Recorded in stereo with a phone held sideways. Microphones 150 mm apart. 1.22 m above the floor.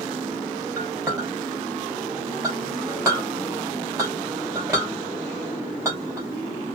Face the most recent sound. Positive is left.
turn(degrees=-20)  # may be behind; listen again after turning